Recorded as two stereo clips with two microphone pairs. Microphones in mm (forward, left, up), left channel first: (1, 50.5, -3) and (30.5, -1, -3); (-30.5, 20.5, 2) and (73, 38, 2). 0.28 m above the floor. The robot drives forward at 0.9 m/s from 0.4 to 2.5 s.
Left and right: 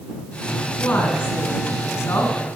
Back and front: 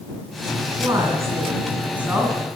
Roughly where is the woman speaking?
Ahead left.